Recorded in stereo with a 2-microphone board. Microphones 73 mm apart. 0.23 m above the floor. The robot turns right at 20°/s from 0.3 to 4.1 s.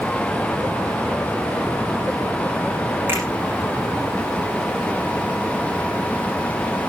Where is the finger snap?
30° right (ahead or behind), 9.5 m; by 3.2 s 35° right (ahead or behind), 9.5 m.